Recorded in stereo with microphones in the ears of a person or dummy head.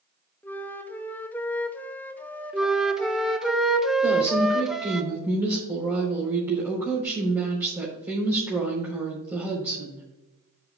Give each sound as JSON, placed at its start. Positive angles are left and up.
{"t": 0.4, "sound": "a flute", "side_deg": 10, "distance_m": 0.7}
{"t": 2.5, "sound": "a flute", "side_deg": -5, "distance_m": 0.7}
{"t": 4.0, "sound": "a woman speaking", "side_deg": -20, "distance_m": 3.5}